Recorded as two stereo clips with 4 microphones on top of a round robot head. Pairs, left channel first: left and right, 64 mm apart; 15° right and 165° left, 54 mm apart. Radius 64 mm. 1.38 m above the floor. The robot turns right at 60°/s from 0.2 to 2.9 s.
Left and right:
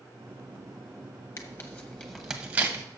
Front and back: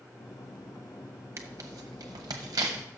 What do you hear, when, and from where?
1.4 s tearing paper: 125° left, 0.9 m; by 2.9 s 145° right, 0.9 m